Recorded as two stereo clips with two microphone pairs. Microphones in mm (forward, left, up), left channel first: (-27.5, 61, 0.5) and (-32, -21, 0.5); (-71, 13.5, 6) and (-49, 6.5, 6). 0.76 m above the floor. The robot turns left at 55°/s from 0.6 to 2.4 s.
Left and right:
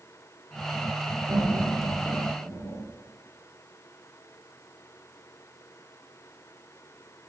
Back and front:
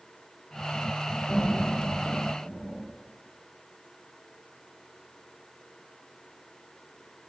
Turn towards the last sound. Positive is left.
turn(degrees=145)